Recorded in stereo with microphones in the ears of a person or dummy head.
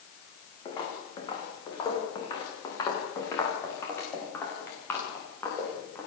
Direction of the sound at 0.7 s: 20° left (ahead or behind).